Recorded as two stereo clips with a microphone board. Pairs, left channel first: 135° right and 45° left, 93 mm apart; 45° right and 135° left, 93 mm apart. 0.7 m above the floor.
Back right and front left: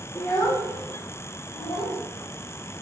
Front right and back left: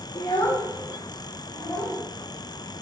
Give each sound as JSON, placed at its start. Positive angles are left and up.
{"t": 0.1, "sound": "a child speaking", "azimuth_deg": -80, "distance_m": 0.8}